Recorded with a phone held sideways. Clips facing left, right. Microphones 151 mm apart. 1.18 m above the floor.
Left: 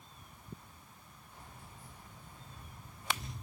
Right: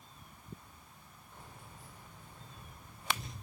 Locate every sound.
1.3 s keys jangling: 70° right (ahead or behind), 3 m